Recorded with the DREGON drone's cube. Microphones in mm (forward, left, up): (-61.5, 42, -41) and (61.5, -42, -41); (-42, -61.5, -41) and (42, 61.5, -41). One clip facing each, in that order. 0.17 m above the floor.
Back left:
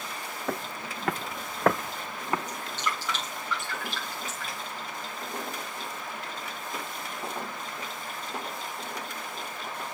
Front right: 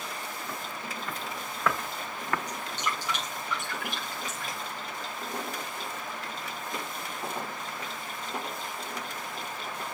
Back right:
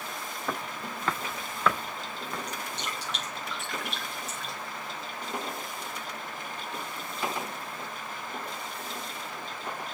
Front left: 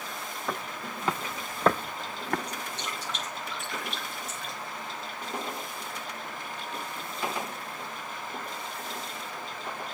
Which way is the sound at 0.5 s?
145° left.